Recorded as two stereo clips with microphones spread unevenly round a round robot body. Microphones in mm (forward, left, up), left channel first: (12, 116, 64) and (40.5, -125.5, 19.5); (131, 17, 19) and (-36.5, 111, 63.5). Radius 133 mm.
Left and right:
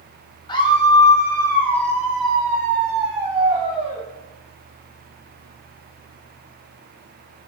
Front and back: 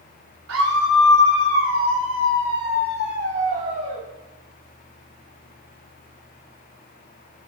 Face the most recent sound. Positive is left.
turn(degrees=-150)